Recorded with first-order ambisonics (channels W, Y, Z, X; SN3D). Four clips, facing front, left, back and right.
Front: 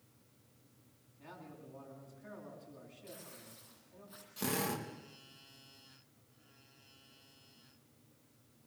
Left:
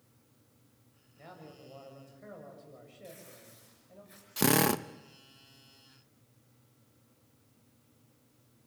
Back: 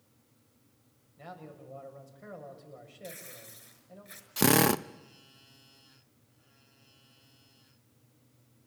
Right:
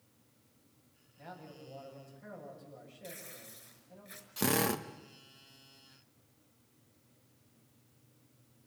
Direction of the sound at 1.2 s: 165° left.